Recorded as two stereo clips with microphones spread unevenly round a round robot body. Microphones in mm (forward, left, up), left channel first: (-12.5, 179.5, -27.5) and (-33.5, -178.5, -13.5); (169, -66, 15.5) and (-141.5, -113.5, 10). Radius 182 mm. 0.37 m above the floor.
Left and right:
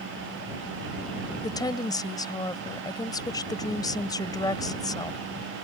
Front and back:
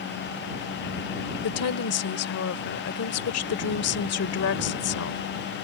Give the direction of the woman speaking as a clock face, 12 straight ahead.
12 o'clock.